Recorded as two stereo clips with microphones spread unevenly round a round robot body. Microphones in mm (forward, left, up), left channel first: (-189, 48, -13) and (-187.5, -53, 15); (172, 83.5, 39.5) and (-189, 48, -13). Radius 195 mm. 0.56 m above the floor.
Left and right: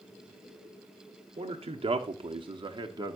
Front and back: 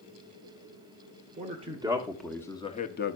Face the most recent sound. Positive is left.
turn(degrees=-35)